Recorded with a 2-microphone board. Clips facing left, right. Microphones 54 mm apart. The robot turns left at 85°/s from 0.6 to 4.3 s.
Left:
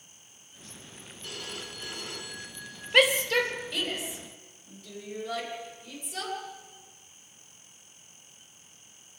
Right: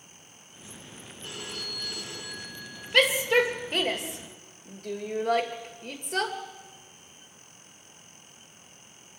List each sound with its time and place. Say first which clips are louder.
1.2 s a phone ringing: right 1 dB; 150° right, 6 m; by 2.8 s 75° left, 6 m
2.9 s a shout: right 1 dB; 10° left (ahead or behind), 2.5 m; by 6.3 s 60° right (ahead or behind), 2.5 m